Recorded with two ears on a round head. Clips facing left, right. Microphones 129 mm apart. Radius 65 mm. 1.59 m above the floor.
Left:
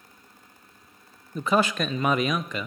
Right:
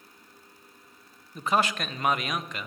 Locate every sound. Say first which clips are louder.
1.4 s a man speaking: left 3 dB; 75° left (ahead or behind), 0.5 m